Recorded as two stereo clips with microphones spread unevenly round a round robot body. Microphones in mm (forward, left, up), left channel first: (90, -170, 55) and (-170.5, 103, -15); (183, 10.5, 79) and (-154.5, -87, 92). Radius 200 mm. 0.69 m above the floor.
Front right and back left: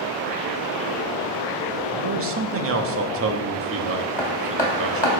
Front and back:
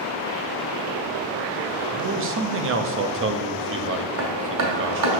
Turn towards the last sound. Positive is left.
turn(degrees=-135)